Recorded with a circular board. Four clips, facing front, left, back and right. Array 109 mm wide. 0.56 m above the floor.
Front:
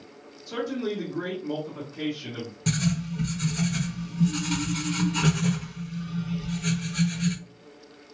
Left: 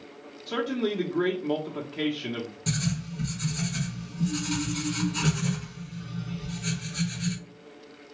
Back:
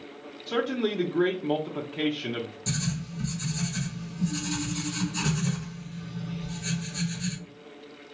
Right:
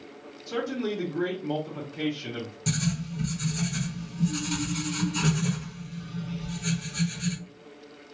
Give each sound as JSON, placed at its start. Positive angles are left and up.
{"t": 0.5, "sound": "a man speaking", "azimuth_deg": 145, "distance_m": 0.6}
{"t": 2.7, "sound": "writing", "azimuth_deg": -5, "distance_m": 1.0}